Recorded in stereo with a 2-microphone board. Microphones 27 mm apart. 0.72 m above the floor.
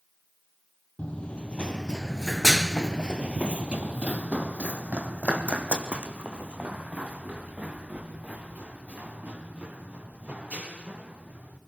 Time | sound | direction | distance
1.0 | running footsteps | 45° left (ahead or behind) | 1.5 m